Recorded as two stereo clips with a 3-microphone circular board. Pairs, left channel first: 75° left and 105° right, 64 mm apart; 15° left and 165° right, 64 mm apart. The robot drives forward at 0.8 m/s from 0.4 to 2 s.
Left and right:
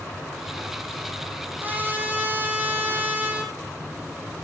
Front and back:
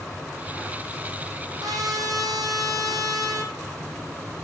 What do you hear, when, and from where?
1.6 s a trumpet: 165° right, 3.5 m